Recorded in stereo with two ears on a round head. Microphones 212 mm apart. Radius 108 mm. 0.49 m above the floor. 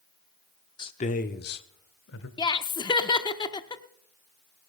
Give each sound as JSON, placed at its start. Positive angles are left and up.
{"t": 0.8, "sound": "a man speaking", "side_deg": 20, "distance_m": 0.8}
{"t": 2.4, "sound": "laughter", "side_deg": 20, "distance_m": 0.7}